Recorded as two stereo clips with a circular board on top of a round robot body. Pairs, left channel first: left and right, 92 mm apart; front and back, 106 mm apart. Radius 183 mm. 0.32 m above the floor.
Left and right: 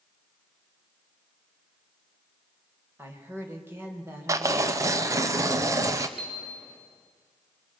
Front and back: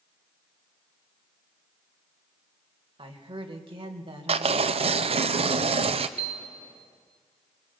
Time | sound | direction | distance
3.0 | a woman speaking | 155° right | 3 m
4.3 | tearing paper | 150° right | 0.5 m
6.2 | a piano | 175° right | 5 m